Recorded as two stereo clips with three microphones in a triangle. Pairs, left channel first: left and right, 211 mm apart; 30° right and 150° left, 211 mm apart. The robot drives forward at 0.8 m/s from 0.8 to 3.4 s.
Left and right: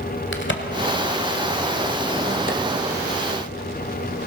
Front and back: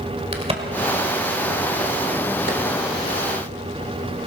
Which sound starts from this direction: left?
A crack, at 0.3 s.